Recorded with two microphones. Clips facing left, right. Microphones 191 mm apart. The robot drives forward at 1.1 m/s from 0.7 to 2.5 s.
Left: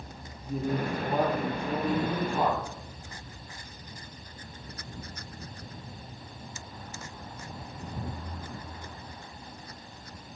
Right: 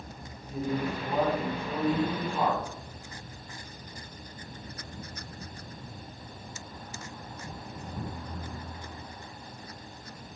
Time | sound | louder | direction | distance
0.5 | a man speaking | left 1 dB | 55° left (ahead or behind) | 2 m